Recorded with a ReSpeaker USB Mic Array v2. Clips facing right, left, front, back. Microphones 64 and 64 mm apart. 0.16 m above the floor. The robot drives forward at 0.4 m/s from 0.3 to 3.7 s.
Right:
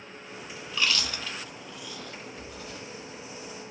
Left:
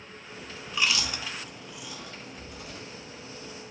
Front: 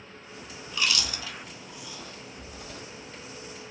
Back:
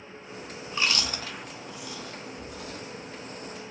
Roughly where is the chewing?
Behind left.